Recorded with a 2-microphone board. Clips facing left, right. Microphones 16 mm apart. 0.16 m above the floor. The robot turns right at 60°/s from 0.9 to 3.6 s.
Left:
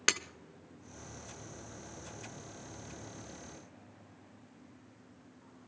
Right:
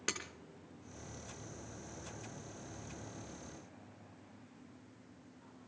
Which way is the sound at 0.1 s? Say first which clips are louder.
Left 9 dB; 50° left (ahead or behind).